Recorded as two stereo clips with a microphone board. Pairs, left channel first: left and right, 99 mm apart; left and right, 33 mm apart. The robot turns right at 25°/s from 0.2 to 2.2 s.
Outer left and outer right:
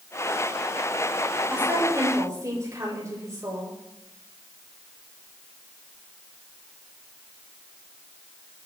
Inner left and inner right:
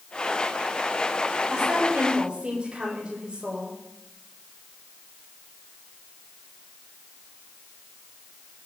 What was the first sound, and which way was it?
A woman speaking, 15° right (ahead or behind).